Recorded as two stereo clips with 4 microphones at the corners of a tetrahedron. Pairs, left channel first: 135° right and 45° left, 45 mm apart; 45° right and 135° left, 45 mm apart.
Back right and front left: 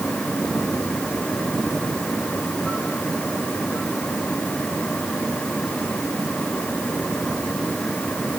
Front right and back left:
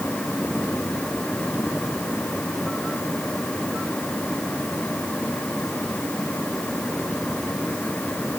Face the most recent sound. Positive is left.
No sound to turn to.